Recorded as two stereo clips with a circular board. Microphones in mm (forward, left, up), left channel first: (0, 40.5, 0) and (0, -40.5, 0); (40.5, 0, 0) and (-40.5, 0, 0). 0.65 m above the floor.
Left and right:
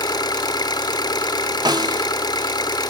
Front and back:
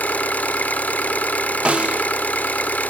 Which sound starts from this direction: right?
A snare drum, at 1.6 s.